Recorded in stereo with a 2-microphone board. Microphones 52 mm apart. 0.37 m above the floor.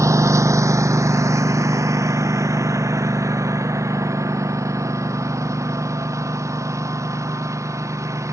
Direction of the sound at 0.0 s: 85° right.